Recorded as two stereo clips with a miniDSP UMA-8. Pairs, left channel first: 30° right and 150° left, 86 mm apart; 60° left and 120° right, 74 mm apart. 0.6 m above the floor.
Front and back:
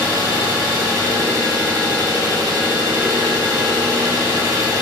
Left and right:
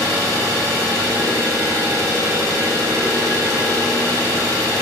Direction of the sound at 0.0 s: 165° right.